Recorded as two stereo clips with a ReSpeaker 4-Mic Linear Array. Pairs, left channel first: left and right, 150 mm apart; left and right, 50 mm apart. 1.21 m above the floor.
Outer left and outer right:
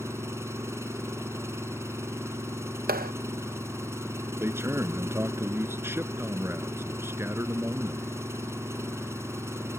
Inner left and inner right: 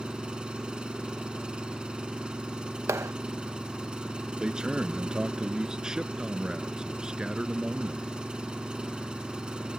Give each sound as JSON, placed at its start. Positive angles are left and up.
{"t": 0.0, "sound": "an engine running", "side_deg": -15}
{"t": 2.9, "sound": "a clap", "side_deg": -85}
{"t": 4.4, "sound": "a man speaking", "side_deg": -15}